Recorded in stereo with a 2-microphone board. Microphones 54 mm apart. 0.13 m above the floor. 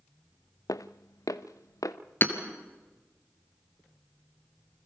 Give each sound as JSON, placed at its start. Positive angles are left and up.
{"t": 0.7, "sound": "footsteps", "side_deg": 85, "distance_m": 0.7}
{"t": 2.2, "sound": "hammering", "side_deg": 40, "distance_m": 2.5}